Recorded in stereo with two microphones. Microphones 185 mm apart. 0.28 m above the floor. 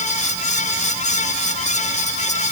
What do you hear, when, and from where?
Only background noise.